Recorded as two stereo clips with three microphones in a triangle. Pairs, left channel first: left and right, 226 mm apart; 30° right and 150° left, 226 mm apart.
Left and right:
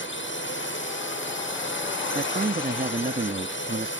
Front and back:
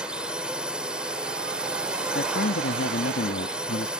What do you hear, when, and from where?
0.0 s a drone: 65° left
2.1 s a man speaking: 40° right